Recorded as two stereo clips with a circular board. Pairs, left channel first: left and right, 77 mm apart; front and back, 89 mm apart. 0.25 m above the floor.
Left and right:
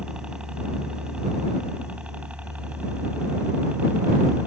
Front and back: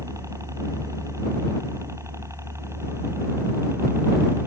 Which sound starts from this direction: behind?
A helicopter, at 0.0 s.